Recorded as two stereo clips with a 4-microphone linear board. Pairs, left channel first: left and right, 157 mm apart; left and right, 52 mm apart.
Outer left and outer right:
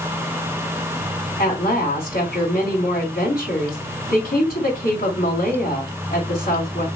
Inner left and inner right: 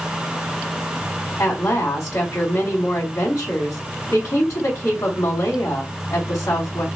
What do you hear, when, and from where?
1.4 s a woman speaking: 70° left (ahead or behind), 3 m